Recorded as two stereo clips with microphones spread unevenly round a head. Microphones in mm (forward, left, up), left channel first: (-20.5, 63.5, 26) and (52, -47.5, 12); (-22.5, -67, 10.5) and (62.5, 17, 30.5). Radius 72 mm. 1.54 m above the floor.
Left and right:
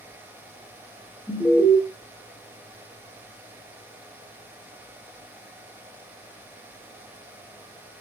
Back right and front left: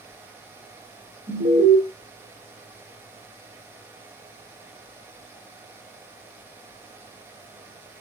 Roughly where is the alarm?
Ahead left.